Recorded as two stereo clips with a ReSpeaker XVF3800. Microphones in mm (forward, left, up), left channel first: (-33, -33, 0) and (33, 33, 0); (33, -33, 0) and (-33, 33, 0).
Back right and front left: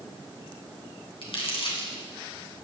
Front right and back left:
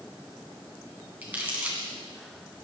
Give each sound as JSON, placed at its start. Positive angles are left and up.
{"t": 1.2, "sound": "crumpling", "azimuth_deg": -150, "distance_m": 2.5}